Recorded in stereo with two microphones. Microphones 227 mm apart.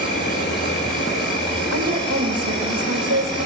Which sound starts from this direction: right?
A woman speaking, at 1.7 s.